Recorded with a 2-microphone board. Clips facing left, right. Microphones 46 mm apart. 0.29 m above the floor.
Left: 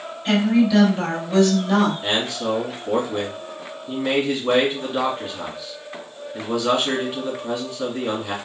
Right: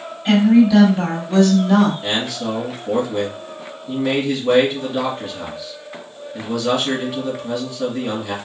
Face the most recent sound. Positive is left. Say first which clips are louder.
# even
turn(degrees=25)  # may be behind; listen again after turning